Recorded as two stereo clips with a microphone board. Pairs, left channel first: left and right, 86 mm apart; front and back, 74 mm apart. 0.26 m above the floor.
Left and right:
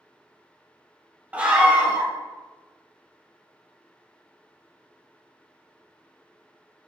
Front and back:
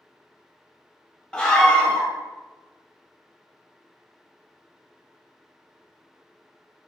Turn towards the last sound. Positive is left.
turn(degrees=-50)